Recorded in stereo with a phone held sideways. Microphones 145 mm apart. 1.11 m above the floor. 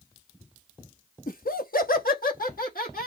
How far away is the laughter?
About 1.1 m.